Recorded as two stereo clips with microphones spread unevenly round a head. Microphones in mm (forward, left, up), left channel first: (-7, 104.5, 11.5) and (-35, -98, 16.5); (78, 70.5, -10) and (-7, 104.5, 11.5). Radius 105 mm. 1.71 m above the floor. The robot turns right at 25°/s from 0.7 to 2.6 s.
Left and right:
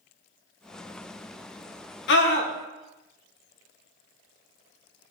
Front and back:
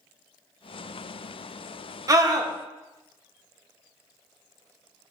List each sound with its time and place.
2.1 s a scream: 115° left, 2 m; by 2.5 s 125° left, 2 m